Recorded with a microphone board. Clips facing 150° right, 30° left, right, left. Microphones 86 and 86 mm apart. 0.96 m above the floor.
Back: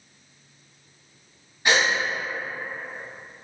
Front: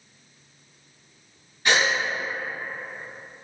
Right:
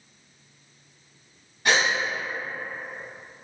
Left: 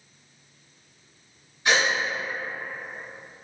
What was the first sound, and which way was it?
A gasp, 80° right.